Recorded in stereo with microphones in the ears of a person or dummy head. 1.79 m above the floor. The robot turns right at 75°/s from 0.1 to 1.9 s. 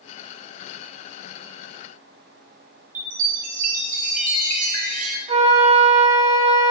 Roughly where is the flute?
Right.